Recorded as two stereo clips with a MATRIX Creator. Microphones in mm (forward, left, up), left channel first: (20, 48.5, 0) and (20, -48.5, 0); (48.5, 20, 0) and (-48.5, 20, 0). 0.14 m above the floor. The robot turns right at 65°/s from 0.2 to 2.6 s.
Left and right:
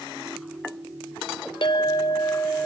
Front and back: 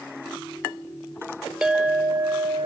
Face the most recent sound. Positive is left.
turn(degrees=160)